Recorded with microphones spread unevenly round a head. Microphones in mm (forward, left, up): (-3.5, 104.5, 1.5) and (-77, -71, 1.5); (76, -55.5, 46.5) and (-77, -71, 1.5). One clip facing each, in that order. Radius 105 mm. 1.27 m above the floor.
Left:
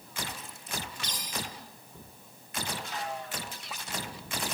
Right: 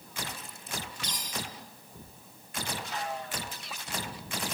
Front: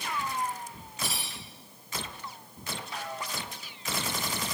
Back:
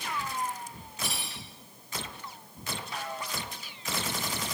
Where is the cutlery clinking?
40° right, 8.5 m.